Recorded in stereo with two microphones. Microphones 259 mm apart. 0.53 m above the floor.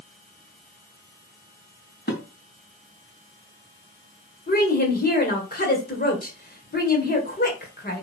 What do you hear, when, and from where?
2.1 s dishes clattering: 35° left (ahead or behind), 3 m
4.5 s a woman speaking: 35° left (ahead or behind), 2.5 m